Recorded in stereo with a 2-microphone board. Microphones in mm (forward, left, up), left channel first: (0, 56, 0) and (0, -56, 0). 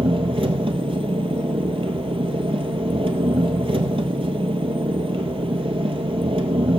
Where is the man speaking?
No man speaking in this recording.